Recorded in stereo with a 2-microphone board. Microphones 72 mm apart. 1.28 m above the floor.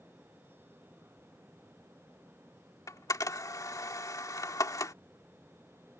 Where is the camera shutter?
55° left (ahead or behind).